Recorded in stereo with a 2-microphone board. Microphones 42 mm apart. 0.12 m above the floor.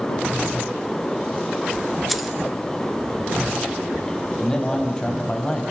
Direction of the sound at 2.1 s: Centre (ahead or behind).